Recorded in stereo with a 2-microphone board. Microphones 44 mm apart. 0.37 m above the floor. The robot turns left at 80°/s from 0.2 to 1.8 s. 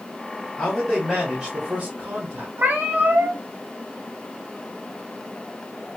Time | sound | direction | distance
0.6 | a man speaking | 25° left | 1.2 m
2.6 | a cat meowing | 50° right (ahead or behind) | 0.9 m